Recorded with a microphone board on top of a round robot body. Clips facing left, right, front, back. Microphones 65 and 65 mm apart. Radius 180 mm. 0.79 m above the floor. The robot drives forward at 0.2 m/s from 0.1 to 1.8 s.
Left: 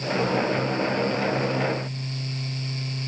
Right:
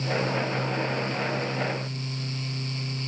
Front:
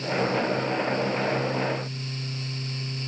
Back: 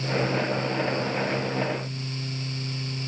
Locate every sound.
Only background noise.